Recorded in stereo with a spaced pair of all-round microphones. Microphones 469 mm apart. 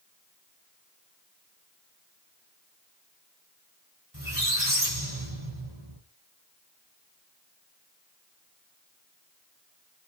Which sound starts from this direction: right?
A squeak, at 4.1 s.